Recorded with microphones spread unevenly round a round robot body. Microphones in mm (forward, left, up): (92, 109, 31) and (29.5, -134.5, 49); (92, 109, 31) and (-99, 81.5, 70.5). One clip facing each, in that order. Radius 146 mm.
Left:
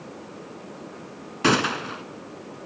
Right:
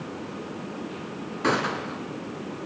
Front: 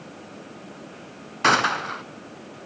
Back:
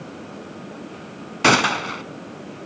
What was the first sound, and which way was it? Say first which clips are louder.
A gunshot: left 4 dB, back 5 dB; 130° left.